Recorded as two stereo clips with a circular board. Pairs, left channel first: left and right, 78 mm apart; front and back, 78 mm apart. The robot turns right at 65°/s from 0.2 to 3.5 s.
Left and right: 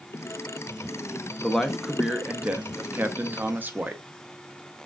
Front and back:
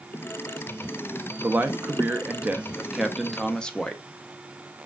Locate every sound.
1.4 s a man speaking: 160° left, 0.6 m; by 4.0 s 70° right, 0.6 m